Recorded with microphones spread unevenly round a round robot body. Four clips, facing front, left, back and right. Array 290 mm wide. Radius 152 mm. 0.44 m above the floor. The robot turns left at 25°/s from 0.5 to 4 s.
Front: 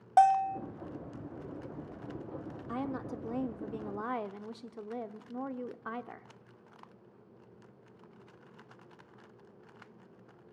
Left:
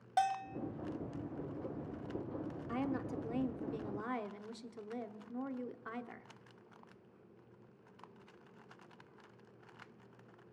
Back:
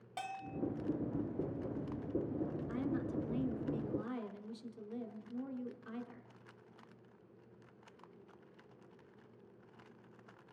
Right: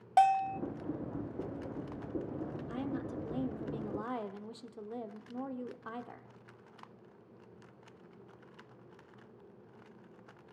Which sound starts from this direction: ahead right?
A bell, at 0.2 s.